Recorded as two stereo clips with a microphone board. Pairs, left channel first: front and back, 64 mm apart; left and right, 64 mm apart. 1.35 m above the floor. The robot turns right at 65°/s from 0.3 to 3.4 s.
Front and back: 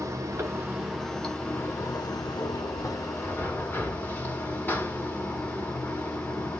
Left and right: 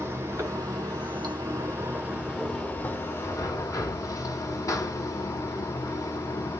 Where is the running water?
140° right, 1.1 m; by 6.6 s 65° left, 1.1 m.